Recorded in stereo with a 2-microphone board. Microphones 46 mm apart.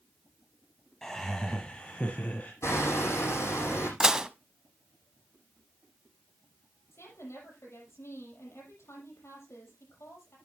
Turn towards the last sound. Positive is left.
turn(degrees=70)  # may be behind; listen again after turning